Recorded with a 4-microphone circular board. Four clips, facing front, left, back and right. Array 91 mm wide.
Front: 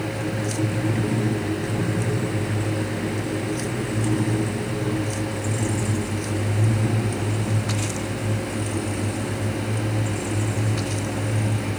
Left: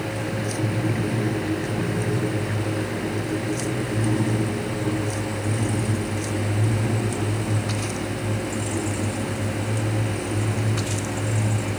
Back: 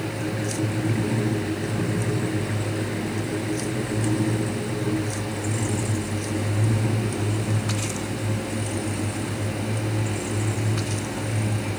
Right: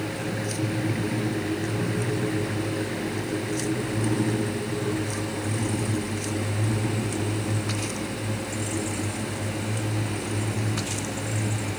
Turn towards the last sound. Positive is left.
No sound to turn to.